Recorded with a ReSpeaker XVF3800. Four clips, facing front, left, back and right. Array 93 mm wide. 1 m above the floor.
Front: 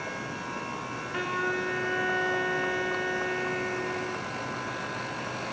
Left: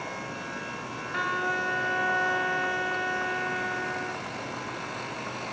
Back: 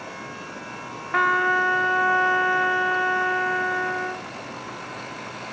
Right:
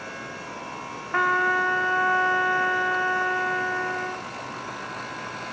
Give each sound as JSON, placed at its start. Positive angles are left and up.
{"t": 1.1, "sound": "a trumpet", "azimuth_deg": -150, "distance_m": 0.7}